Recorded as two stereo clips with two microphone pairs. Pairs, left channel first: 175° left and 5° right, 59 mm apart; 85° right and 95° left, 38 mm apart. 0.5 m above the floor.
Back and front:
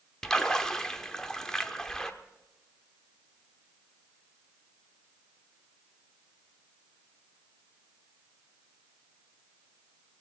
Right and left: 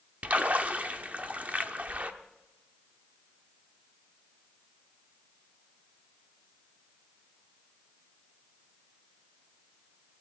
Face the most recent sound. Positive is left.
turn(degrees=100)